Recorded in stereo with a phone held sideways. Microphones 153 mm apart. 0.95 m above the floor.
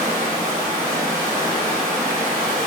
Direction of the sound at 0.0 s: 10° left (ahead or behind).